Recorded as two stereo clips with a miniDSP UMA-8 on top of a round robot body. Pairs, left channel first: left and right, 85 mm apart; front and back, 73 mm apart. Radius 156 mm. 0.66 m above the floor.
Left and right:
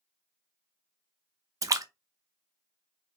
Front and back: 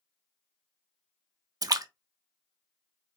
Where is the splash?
140° right, 0.6 m.